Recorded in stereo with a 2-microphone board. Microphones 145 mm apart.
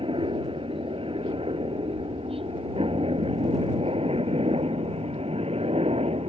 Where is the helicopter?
40° right (ahead or behind); by 6.3 s 45° right (ahead or behind).